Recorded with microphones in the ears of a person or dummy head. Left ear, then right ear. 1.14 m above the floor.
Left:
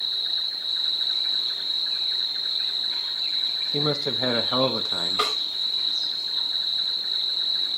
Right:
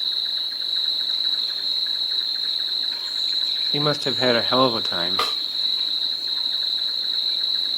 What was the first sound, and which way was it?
An insect, 80° right.